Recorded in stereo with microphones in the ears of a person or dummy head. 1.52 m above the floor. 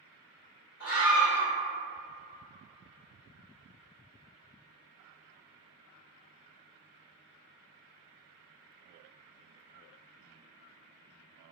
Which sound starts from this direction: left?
A scream, at 0.8 s.